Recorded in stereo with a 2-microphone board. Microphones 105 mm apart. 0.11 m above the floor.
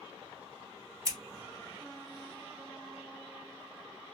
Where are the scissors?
30° right (ahead or behind), 1.9 m.